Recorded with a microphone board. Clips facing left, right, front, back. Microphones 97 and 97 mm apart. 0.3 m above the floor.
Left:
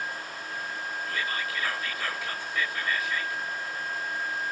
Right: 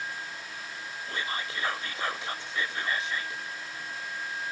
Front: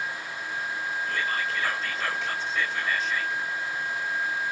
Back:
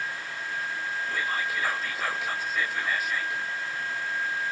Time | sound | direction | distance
1.1 | whispering | 105° right | 0.9 m